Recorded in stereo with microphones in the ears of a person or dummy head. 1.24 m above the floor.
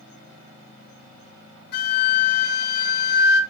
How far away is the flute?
About 1.2 m.